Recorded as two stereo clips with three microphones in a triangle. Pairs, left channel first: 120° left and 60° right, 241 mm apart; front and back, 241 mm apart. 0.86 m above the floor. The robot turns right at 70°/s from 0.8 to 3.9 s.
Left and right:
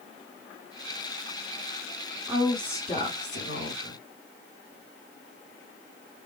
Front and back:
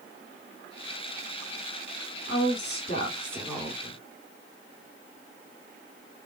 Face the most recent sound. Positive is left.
turn(degrees=125)